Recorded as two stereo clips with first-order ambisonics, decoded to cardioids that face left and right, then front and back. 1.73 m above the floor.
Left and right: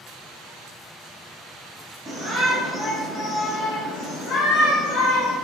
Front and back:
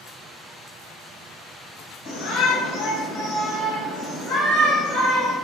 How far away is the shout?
About 1.3 m.